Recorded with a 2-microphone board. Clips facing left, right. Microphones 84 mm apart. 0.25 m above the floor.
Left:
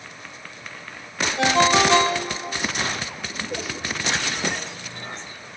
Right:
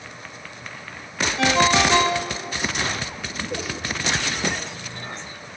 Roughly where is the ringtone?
Left.